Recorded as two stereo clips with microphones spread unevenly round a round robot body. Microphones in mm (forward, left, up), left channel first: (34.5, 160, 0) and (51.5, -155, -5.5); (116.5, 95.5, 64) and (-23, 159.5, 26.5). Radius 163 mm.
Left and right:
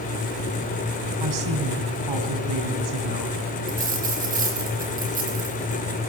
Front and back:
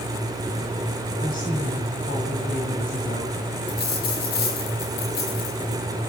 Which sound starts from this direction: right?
A woman speaking, at 1.2 s.